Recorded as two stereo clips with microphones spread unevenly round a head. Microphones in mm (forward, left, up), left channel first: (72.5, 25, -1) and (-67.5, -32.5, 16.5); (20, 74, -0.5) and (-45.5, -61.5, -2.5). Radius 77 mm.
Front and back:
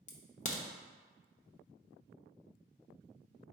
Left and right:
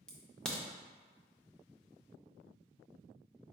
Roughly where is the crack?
Ahead.